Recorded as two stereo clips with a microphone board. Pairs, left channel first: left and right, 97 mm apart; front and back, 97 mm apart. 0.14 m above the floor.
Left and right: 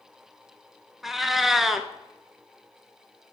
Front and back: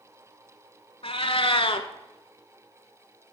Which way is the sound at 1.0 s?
Straight ahead.